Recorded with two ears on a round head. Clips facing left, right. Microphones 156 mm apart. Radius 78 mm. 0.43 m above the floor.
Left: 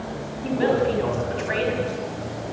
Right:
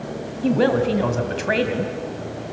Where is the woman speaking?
70° right (ahead or behind), 3 m.